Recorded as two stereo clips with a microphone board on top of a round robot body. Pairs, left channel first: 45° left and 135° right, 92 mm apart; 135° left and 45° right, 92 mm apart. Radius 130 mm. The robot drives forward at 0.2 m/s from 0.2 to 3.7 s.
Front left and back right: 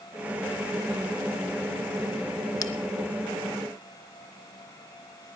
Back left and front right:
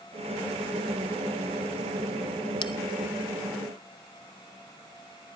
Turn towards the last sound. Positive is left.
turn(degrees=120)